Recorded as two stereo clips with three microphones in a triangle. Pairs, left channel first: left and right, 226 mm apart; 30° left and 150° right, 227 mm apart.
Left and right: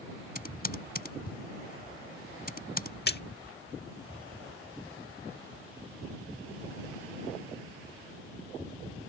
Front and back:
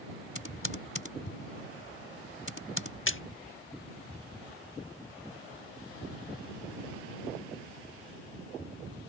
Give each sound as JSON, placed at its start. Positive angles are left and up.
{"t": 0.3, "sound": "typing on a keyboard", "azimuth_deg": 45}
{"t": 3.1, "sound": "a splash", "azimuth_deg": 50}